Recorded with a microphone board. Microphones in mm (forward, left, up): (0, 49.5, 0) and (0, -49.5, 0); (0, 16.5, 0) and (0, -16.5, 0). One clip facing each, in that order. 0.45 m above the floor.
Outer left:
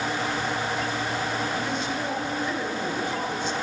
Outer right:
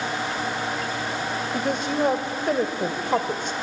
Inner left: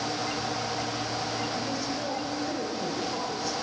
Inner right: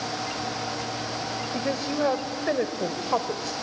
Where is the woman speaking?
60° right (ahead or behind), 2 m.